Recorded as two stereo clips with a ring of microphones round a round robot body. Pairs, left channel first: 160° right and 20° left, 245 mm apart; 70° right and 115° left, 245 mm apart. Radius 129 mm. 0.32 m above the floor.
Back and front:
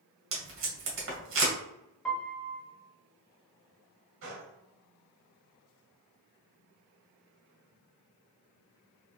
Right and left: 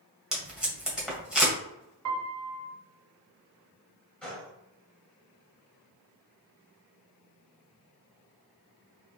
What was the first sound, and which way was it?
Tape being pulled, 25° left.